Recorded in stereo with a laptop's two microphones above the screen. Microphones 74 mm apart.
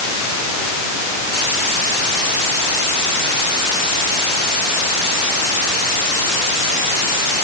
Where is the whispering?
No whispering in this recording.